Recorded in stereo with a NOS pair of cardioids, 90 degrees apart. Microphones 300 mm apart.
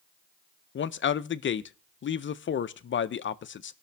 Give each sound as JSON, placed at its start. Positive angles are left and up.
{"t": 0.8, "sound": "a man speaking", "azimuth_deg": 40, "distance_m": 0.8}